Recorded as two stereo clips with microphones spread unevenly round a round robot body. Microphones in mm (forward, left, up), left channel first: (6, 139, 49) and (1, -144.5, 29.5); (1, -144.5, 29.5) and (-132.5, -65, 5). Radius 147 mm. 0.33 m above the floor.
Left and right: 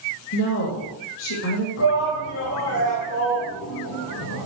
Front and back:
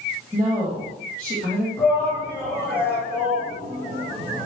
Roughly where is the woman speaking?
Left.